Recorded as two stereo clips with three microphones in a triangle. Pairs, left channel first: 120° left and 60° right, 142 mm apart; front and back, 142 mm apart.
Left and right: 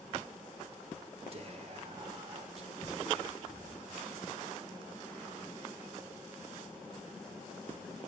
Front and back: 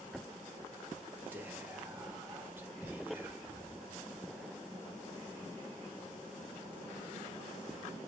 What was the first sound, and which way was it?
Whispering, 105° right.